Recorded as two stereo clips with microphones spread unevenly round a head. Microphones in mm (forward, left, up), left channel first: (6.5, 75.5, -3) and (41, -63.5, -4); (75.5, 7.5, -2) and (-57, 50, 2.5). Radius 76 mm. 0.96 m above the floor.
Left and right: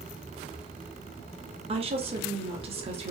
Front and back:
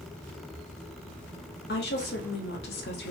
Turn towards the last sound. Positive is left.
turn(degrees=-25)